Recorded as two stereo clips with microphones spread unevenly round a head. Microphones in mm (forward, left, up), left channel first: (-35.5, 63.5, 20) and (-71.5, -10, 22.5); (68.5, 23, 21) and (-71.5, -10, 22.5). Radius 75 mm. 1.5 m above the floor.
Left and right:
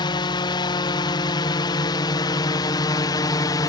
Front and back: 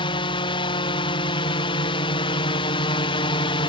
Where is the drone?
65° left; by 3.7 s 55° left.